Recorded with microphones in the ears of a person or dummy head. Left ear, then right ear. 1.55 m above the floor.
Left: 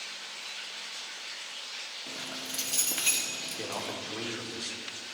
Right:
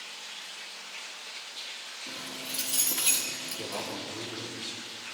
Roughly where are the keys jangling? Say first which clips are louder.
Right 2 dB; centre.